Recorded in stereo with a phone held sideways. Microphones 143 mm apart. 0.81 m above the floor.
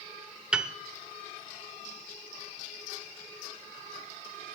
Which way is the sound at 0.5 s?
5° right (ahead or behind).